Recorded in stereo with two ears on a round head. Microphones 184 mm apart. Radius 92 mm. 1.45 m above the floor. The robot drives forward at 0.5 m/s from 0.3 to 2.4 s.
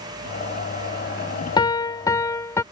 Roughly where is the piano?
Left.